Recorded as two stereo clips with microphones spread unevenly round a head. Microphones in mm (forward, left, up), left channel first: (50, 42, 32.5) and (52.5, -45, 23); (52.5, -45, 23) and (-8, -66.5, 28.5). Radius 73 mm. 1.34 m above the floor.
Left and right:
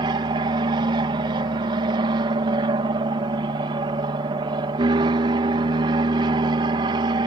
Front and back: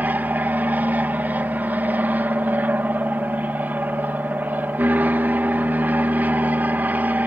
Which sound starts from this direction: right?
An aircraft, at 0.0 s.